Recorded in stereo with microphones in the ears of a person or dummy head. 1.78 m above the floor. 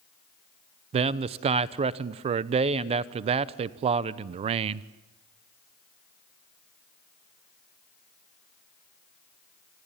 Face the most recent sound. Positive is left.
turn(degrees=-35)  # may be behind; listen again after turning